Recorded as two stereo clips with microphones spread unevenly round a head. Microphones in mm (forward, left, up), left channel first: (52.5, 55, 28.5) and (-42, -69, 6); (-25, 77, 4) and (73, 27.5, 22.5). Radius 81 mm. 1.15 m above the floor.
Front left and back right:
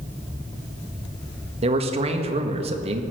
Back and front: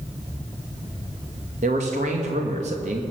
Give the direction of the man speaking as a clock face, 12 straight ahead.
3 o'clock.